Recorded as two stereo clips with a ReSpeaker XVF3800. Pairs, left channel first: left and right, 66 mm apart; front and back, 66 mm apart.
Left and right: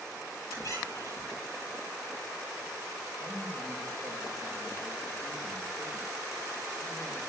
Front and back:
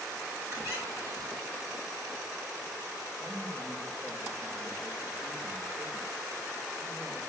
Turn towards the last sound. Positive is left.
turn(degrees=130)